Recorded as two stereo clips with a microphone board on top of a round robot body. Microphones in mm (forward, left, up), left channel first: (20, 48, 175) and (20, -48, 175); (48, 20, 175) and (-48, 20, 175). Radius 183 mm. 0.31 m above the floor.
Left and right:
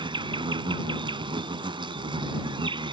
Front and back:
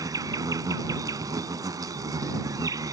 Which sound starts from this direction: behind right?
An insect, at 0.0 s.